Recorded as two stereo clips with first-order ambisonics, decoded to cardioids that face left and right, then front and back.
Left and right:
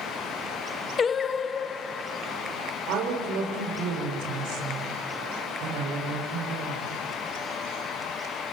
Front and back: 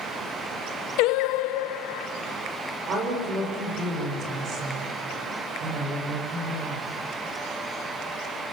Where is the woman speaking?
125° right, 5.5 m.